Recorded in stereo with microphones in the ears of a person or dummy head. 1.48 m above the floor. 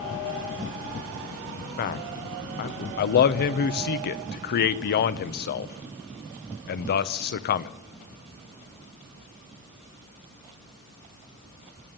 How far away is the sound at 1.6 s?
About 0.9 m.